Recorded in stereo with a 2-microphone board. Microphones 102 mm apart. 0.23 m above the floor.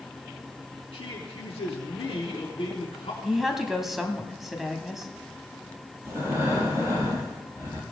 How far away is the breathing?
About 4 m.